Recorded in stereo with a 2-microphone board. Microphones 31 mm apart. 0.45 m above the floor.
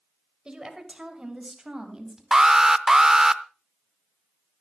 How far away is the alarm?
About 0.5 m.